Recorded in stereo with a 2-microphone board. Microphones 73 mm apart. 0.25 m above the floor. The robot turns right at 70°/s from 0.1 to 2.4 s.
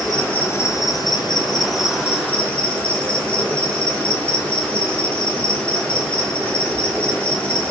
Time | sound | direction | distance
0.0 | an insect | straight ahead | 1.1 m